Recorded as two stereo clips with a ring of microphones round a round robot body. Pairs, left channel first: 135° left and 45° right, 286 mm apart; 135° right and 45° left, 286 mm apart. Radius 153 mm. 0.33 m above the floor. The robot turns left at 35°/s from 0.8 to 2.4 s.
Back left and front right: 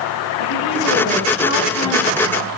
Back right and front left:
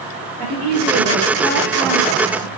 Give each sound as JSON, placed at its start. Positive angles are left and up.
{"t": 0.4, "sound": "a woman speaking", "azimuth_deg": 105, "distance_m": 4.5}